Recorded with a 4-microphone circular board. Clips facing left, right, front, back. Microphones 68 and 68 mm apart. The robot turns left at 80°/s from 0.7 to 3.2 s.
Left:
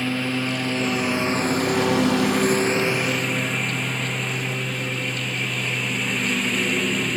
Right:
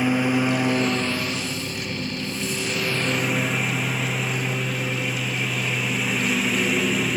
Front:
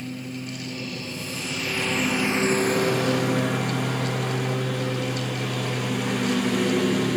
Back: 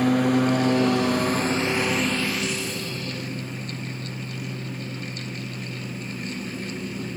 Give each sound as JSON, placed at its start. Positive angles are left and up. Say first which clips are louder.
{"t": 0.0, "sound": "a lawn mower", "louder": "right 4 dB, back 14 dB", "azimuth_deg": -165}